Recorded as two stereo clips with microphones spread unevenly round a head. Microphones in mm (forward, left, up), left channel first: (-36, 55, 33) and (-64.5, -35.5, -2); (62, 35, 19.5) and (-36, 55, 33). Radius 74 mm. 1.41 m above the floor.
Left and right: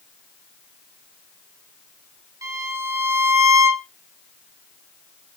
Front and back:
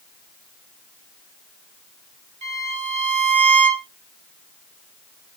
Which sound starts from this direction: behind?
A violin, at 2.4 s.